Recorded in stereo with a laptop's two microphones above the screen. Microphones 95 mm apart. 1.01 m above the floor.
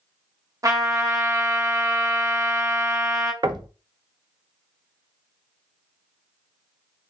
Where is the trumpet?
35° right (ahead or behind), 0.9 m.